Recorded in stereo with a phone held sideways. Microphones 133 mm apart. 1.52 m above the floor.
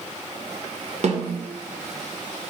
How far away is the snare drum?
About 1.0 m.